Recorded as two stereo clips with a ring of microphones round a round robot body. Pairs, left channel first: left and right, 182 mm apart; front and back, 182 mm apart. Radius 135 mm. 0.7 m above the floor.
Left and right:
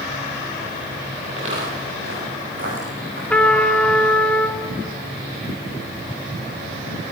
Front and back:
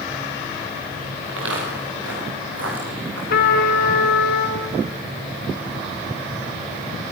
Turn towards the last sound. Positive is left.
turn(degrees=5)